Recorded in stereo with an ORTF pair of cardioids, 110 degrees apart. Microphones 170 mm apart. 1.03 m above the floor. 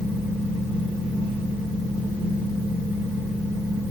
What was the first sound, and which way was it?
A fan, 10° right.